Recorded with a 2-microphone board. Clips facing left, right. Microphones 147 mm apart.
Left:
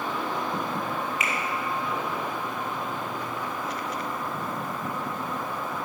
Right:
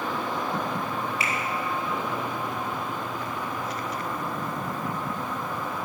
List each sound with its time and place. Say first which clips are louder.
1.2 s a finger snap: even; 35° right (ahead or behind), 3 m